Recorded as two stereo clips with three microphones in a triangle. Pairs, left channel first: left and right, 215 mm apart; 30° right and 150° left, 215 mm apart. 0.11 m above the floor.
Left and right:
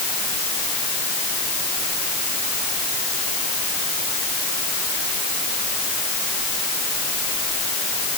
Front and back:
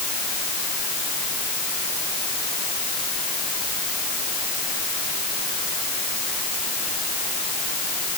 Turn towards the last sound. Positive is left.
No sound to turn to.